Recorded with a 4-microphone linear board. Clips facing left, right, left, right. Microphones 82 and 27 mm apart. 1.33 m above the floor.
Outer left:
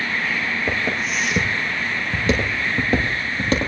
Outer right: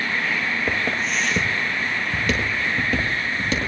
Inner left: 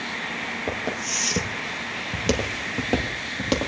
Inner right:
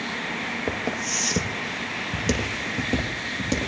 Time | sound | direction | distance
0.7 | footsteps | centre (ahead or behind) | 1.8 m